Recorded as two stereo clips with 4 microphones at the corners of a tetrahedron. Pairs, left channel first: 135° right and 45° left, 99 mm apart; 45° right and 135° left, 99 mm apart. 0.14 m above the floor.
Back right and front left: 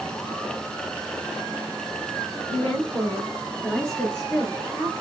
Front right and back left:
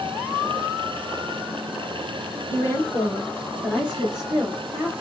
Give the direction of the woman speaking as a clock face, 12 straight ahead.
2 o'clock.